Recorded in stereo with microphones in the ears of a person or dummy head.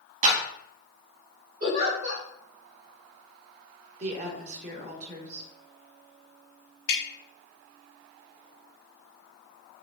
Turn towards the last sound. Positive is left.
turn(degrees=65)  # may be behind; listen again after turning